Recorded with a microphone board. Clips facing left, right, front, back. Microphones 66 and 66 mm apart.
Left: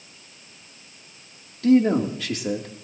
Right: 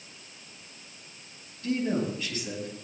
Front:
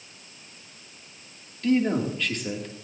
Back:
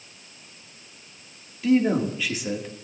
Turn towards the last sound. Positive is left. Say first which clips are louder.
# left 11 dB, back 2 dB
turn(degrees=95)